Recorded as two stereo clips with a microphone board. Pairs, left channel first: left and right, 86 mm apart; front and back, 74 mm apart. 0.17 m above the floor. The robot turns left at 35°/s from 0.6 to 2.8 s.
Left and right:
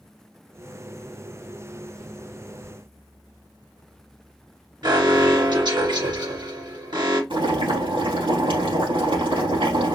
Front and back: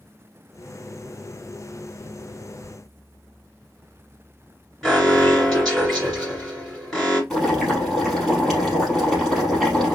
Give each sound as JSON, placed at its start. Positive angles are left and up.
{"t": 4.8, "sound": "an alarm", "azimuth_deg": -90, "distance_m": 3.0}
{"t": 7.3, "sound": "boiling", "azimuth_deg": -90, "distance_m": 3.5}